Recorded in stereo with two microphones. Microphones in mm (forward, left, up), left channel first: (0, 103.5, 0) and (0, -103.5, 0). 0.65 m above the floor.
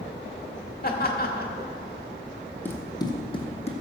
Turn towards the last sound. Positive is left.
turn(degrees=30)  # may be behind; listen again after turning